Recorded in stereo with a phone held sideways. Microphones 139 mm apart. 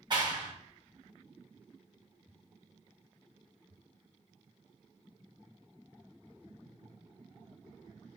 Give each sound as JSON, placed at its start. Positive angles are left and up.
{"t": 0.1, "sound": "a clap", "side_deg": -35, "distance_m": 1.0}